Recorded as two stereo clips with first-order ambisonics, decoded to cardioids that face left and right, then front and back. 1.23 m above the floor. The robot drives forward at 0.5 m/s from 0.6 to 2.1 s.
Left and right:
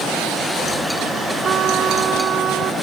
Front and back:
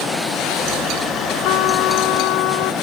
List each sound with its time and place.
1.4 s a trumpet: 30° right